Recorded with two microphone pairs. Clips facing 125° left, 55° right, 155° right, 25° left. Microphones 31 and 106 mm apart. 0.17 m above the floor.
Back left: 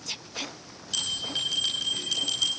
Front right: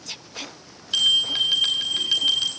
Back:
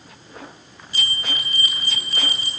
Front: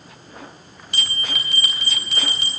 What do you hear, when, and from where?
0.9 s a bell: straight ahead, 4 m